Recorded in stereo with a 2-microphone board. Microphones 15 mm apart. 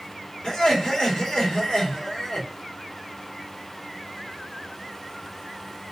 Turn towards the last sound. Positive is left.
turn(degrees=60)  # may be behind; listen again after turning